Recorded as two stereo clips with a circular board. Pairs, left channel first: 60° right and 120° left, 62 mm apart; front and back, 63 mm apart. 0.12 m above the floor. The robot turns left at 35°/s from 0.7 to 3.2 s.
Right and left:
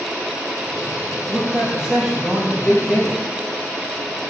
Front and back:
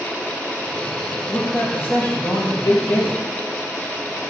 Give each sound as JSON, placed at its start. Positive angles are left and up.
{"t": 1.3, "sound": "a man speaking", "azimuth_deg": 60, "distance_m": 3.5}